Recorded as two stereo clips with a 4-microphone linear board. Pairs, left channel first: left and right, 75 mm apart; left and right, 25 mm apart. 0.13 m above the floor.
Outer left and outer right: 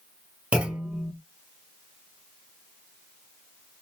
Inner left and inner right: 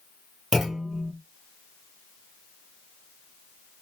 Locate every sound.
0.5 s a clunk: 15° right (ahead or behind), 1.5 m